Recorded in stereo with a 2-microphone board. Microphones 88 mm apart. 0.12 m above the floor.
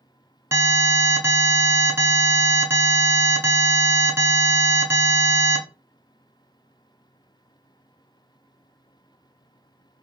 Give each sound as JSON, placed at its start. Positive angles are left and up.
{"t": 0.5, "sound": "an alarm", "side_deg": -30, "distance_m": 0.8}